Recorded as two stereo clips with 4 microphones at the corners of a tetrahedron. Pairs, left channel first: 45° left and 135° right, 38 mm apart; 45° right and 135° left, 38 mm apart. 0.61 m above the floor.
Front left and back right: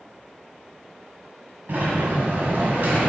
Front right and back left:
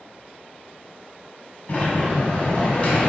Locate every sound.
1.7 s a sliding door: 95° right, 1.9 m